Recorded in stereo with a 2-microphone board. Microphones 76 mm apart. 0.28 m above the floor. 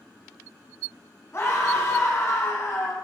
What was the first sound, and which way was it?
A scream, 40° left (ahead or behind).